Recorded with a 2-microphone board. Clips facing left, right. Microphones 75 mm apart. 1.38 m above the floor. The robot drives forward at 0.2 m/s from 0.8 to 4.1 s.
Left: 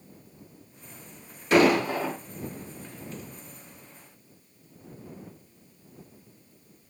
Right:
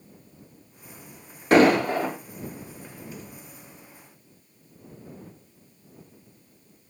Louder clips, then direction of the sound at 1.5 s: Right 3 dB; 45° right (ahead or behind).